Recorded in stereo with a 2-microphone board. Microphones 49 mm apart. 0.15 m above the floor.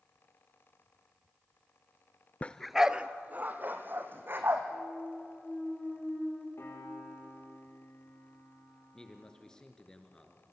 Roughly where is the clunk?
Centre.